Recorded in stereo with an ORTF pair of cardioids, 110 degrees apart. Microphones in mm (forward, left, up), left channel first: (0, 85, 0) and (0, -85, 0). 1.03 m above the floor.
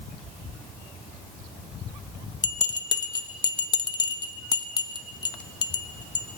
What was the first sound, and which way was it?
A bell, 25° left.